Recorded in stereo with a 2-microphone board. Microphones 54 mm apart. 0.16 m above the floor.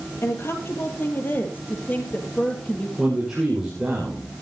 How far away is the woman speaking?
About 3 m.